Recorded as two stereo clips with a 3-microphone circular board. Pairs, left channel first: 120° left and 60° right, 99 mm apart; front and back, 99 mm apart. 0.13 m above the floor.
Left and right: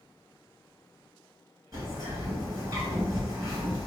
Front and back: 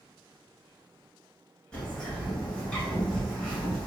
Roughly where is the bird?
Right.